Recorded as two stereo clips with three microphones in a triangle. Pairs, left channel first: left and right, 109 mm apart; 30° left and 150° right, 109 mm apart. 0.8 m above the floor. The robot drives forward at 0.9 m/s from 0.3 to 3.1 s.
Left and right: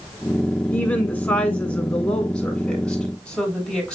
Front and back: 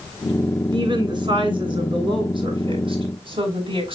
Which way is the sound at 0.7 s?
165° left.